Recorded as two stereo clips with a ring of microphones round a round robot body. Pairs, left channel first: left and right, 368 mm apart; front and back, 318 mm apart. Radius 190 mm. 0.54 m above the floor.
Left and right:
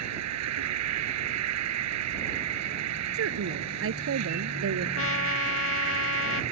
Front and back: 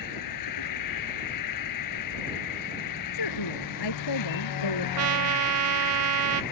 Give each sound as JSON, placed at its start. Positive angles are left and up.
{"t": 0.0, "sound": "an insect", "azimuth_deg": -40}
{"t": 3.1, "sound": "a woman speaking", "azimuth_deg": -35}
{"t": 5.0, "sound": "a trumpet", "azimuth_deg": 140}